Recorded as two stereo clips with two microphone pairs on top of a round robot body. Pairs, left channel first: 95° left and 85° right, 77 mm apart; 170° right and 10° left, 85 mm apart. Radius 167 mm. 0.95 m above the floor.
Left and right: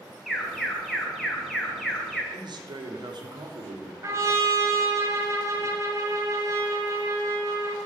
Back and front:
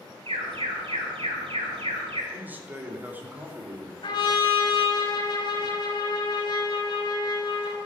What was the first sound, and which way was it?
An alarm, 5° left.